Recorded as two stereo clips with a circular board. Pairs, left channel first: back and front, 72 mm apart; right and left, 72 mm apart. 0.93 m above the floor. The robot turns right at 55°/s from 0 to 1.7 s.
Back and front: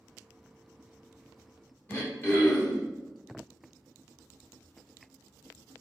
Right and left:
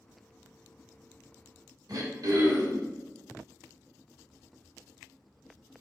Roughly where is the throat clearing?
Behind left.